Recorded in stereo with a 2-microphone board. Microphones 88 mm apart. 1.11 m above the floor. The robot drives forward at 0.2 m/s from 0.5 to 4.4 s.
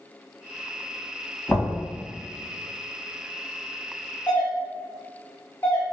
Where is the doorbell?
30° left (ahead or behind), 1.3 m.